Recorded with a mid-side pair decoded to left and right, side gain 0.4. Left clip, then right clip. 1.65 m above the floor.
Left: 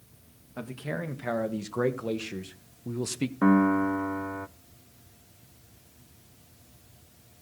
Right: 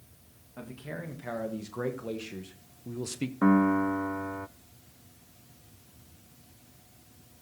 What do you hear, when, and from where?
0.6 s a man speaking: 50° left, 2.5 m; by 3.3 s 30° left, 1.2 m
3.4 s a piano: 10° left, 0.6 m